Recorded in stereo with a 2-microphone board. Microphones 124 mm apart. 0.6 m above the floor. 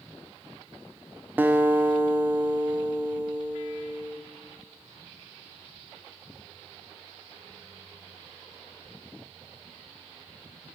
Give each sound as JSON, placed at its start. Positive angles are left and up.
{"t": 1.4, "sound": "a guitar", "side_deg": -15, "distance_m": 0.7}